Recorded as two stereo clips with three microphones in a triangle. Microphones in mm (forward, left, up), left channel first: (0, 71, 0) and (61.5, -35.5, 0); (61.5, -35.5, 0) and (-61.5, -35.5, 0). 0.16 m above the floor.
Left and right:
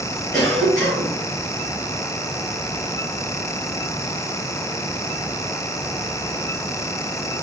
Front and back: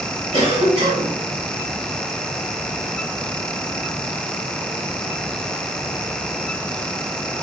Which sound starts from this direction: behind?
A cough, at 0.3 s.